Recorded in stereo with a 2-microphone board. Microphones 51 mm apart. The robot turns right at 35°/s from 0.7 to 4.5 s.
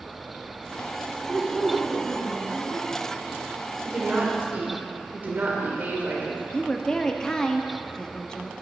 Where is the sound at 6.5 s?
10° left (ahead or behind), 0.6 m.